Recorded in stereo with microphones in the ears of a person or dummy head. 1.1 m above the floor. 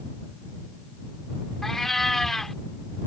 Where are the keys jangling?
No keys jangling in this recording.